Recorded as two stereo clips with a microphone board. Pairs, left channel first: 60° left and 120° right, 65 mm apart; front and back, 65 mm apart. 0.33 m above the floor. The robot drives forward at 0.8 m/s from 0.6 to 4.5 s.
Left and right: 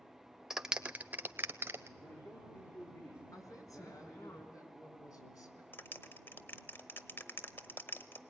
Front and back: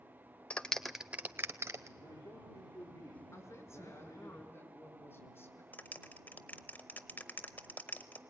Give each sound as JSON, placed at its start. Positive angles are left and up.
{"t": 0.5, "sound": "a clap", "azimuth_deg": -45, "distance_m": 0.7}
{"t": 2.0, "sound": "a man speaking", "azimuth_deg": 15, "distance_m": 5.5}
{"t": 3.3, "sound": "a woman speaking", "azimuth_deg": 40, "distance_m": 4.0}
{"t": 5.7, "sound": "a clap", "azimuth_deg": 35, "distance_m": 0.9}